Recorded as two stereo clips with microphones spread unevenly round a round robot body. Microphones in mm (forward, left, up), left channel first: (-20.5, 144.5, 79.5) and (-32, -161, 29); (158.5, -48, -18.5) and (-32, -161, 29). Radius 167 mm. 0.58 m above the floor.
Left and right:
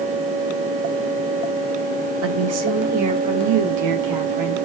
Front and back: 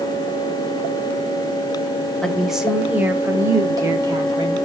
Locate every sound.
2.2 s a woman speaking: 55° right, 2.5 m; by 4.7 s 80° right, 4 m